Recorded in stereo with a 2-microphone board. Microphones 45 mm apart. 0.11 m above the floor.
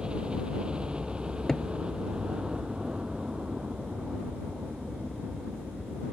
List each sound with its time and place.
0.0 s a helicopter: 20° right (ahead or behind)
1.5 s a cupboard door: 10° left (ahead or behind)